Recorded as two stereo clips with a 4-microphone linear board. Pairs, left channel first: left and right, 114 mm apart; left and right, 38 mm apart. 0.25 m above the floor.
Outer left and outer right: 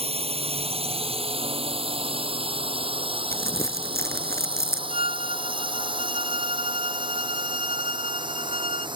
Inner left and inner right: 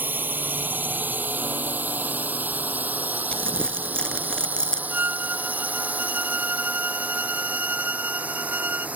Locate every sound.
0.0 s a drone: 65° right (ahead or behind); by 9.0 s 45° right (ahead or behind)
3.3 s crumpling: 25° left (ahead or behind)
4.9 s a violin: 65° right (ahead or behind)